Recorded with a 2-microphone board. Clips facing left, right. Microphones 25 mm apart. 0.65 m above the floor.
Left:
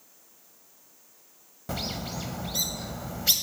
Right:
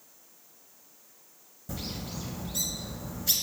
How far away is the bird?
About 0.8 m.